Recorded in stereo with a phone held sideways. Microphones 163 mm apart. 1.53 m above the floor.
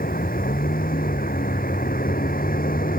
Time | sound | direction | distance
0.0 | a vehicle | 60° left (ahead or behind) | ?